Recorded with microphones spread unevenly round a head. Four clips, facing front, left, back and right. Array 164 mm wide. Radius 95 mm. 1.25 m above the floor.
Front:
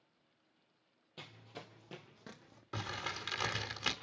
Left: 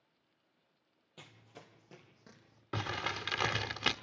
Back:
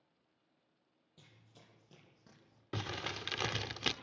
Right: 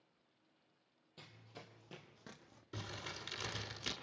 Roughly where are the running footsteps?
Ahead.